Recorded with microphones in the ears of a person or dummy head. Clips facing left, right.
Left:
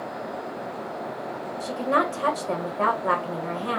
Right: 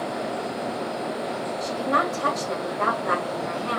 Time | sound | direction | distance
1.6 | a woman speaking | 40° left (ahead or behind) | 1.5 m